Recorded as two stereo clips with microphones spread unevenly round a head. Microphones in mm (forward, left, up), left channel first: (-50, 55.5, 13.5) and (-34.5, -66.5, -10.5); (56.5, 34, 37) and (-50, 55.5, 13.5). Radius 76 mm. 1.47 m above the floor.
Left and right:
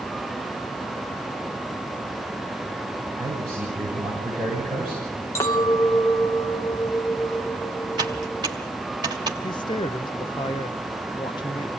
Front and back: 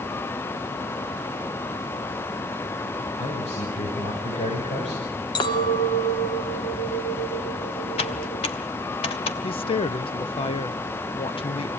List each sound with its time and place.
3.2 s a man speaking: 10° left, 7.5 m; by 5.1 s 5° left, 7.5 m
5.3 s a clink: 30° left, 2.0 m
8.0 s typing on a keyboard: 15° right, 1.9 m
9.4 s a woman speaking: 30° left, 0.7 m